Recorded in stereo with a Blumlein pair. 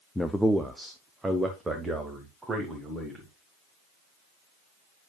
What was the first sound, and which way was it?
A man speaking, 5° left.